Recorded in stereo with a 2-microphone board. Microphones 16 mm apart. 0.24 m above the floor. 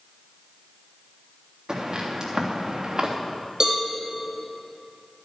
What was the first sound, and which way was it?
Footsteps, 40° right (ahead or behind).